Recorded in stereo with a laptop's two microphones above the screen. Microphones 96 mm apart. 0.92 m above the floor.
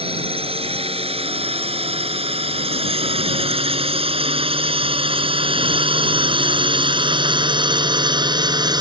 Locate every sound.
0.0 s a drone: 80° right; by 8.8 s 45° right (ahead or behind)